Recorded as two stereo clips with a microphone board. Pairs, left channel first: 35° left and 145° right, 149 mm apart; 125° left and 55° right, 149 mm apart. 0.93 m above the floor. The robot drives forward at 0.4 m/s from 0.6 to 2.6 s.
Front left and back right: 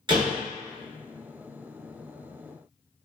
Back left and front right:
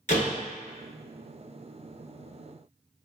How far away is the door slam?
About 0.8 m.